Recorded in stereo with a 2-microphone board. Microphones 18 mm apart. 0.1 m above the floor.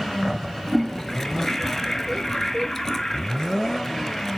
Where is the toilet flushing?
25° left (ahead or behind), 0.6 m.